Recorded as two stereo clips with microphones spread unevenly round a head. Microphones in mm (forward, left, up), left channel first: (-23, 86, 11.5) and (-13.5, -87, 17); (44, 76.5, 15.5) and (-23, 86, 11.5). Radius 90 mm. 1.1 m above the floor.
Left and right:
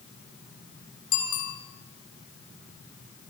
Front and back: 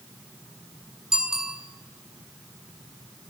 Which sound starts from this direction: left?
A bicycle bell, at 1.1 s.